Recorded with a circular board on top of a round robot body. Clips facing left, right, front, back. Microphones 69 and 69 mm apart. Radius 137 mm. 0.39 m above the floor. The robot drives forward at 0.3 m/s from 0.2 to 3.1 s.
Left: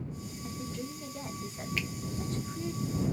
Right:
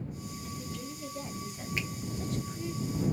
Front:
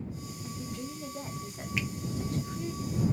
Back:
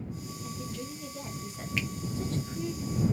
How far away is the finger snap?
About 1.2 m.